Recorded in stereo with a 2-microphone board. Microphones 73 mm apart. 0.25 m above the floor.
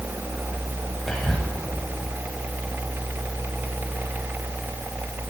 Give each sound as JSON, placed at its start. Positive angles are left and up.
{"t": 1.1, "sound": "whispering", "side_deg": 5, "distance_m": 1.1}